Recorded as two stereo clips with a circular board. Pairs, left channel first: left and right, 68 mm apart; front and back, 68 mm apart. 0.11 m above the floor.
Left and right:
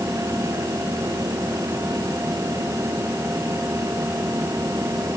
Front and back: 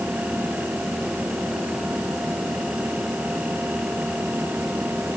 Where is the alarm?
I don't hear an alarm.